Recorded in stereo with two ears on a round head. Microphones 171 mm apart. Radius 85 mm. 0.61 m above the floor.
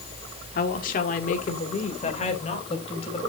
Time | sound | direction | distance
0.6 | a woman speaking | 50° left (ahead or behind) | 1.7 m